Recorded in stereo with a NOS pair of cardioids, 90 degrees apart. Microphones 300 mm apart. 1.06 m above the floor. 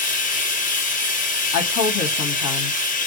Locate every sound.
0.0 s running water: 30° left, 0.8 m
1.5 s a woman speaking: 70° left, 1.0 m